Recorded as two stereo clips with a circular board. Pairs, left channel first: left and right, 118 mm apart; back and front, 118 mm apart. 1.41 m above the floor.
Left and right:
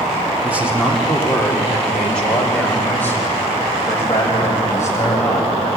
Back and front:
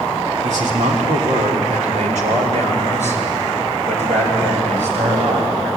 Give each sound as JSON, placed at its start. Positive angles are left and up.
{"t": 0.4, "sound": "a man speaking", "azimuth_deg": -15, "distance_m": 3.0}